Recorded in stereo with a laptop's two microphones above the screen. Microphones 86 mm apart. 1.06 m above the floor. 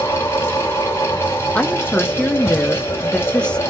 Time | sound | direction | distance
0.0 | a fan | 30° left (ahead or behind) | 1.2 m
1.6 | a woman speaking | 10° left (ahead or behind) | 0.5 m